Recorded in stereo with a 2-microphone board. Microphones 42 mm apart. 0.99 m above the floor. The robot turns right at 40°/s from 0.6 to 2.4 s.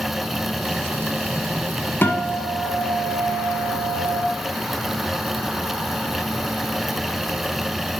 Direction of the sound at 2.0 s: 50° left (ahead or behind).